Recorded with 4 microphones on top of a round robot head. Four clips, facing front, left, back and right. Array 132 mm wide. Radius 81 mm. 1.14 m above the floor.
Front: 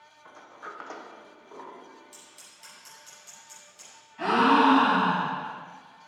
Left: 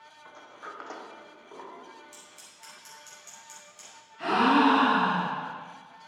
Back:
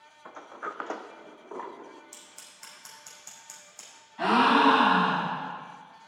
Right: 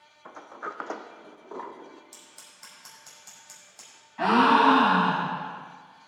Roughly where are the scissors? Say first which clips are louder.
Left 1 dB, even; behind right.